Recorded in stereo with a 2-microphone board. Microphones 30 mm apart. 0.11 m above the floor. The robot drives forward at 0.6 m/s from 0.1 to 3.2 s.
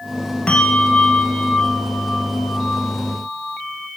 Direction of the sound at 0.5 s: 40° left (ahead or behind).